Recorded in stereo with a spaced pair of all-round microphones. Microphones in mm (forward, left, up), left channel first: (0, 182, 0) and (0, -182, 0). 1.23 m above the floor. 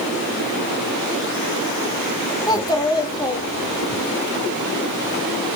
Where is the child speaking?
10° left (ahead or behind), 2 m.